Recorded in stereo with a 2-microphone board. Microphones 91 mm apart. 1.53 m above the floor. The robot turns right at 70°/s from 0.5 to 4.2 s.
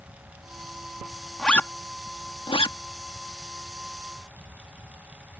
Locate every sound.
1.4 s a zipper: 5° left (ahead or behind); by 2.8 s 75° left (ahead or behind)